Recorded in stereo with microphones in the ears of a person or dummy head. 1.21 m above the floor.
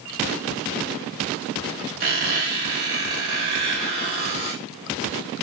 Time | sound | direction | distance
2.0 | a squeak | 35° right (ahead or behind) | 0.8 m